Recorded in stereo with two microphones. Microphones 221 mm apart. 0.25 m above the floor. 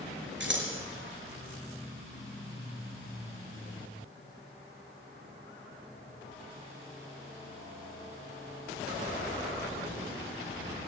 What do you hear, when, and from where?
0.4 s scissors: 60° right (ahead or behind), 4 m